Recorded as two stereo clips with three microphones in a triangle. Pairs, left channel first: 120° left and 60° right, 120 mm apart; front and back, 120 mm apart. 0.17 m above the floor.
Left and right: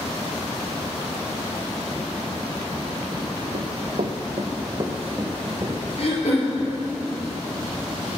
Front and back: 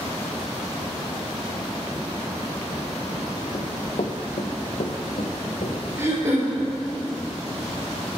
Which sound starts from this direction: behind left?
Throat clearing, at 6.0 s.